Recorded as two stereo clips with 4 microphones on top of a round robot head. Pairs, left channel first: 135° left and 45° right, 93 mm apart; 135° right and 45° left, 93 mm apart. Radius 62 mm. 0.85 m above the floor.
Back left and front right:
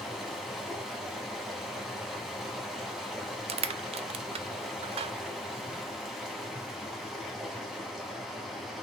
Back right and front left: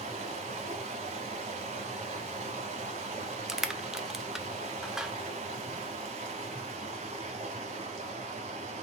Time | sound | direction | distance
0.0 | running water | 45° left | 1.0 m
3.5 | crushing | 40° right | 0.5 m